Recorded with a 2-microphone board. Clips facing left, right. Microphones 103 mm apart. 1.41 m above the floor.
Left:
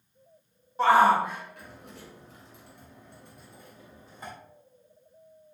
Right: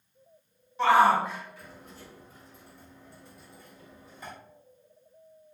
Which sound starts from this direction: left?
A shout, at 0.8 s.